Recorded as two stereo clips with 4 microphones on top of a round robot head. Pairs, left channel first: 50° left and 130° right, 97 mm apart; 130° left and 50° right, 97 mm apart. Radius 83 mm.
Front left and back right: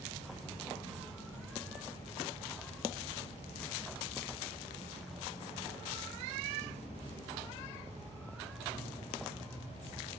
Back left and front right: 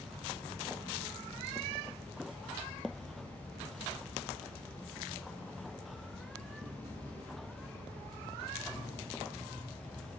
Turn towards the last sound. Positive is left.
turn(degrees=60)